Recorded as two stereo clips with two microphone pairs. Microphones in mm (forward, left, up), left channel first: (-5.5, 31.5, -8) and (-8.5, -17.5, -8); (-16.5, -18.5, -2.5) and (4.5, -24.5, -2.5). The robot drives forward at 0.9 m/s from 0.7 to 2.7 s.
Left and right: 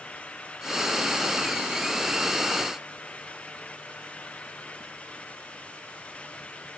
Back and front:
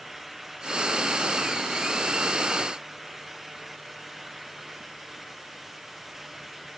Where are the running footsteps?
No running footsteps in this recording.